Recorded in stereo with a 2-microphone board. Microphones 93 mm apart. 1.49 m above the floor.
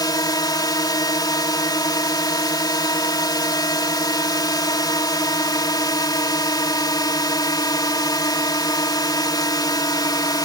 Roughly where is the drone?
Left.